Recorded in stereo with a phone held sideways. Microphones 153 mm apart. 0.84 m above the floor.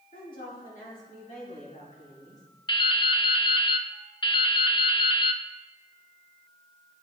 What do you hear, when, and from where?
0.1 s a woman speaking: 65° left (ahead or behind), 2.5 m; by 2.4 s 60° left (ahead or behind), 3.5 m
2.7 s dripping: 30° left (ahead or behind), 0.5 m